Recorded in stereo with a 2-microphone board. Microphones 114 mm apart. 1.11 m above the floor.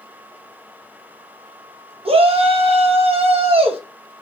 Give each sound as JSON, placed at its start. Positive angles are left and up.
{"t": 2.0, "sound": "a shout", "side_deg": -60, "distance_m": 1.1}